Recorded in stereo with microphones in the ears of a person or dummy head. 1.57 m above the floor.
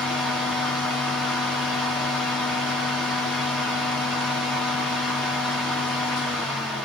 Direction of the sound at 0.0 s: 5° left (ahead or behind).